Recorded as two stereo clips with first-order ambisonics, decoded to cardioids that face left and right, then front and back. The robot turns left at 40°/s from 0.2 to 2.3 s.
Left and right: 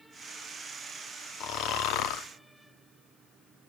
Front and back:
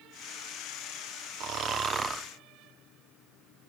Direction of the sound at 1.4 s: 135° left.